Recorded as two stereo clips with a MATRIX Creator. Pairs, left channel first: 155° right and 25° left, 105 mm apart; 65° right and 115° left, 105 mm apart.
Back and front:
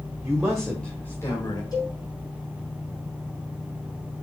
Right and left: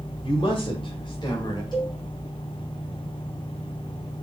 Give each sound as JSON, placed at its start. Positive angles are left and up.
{"t": 0.2, "sound": "a man speaking", "azimuth_deg": -50, "distance_m": 2.5}
{"t": 1.7, "sound": "a cowbell", "azimuth_deg": -105, "distance_m": 4.0}